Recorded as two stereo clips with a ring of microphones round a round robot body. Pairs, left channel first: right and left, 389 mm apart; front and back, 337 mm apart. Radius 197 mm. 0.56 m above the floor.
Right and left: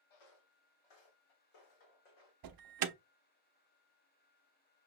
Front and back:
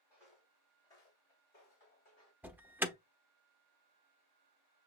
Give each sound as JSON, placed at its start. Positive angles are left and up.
{"t": 0.1, "sound": "footsteps", "azimuth_deg": -95, "distance_m": 0.9}
{"t": 2.4, "sound": "an alarm", "azimuth_deg": 95, "distance_m": 0.6}